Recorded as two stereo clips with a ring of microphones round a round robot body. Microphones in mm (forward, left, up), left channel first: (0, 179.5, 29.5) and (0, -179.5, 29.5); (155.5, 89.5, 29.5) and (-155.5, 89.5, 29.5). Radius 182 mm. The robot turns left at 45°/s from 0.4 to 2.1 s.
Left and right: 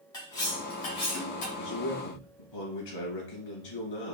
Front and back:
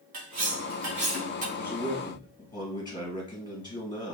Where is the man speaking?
100° left, 2.5 m; by 4.2 s 75° left, 2.5 m.